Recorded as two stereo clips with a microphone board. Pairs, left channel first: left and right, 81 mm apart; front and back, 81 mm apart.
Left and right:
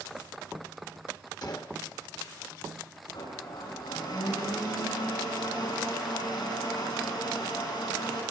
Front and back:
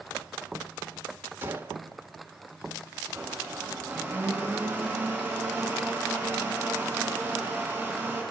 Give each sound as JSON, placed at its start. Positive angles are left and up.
{"t": 1.4, "sound": "a gunshot", "azimuth_deg": 120, "distance_m": 1.3}
{"t": 3.1, "sound": "a blender", "azimuth_deg": 110, "distance_m": 7.5}